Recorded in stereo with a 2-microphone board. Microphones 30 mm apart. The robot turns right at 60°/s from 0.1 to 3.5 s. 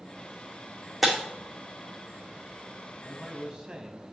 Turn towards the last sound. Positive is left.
turn(degrees=-30)  # may be behind; listen again after turning